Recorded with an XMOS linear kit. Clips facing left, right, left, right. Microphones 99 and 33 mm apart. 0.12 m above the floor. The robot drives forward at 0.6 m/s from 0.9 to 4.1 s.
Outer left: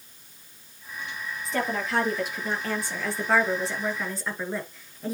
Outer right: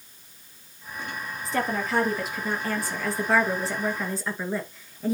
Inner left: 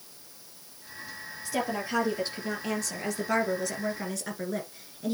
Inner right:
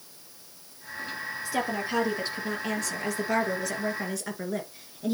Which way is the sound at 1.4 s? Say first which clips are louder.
Outer right 1 dB, even; centre (ahead or behind).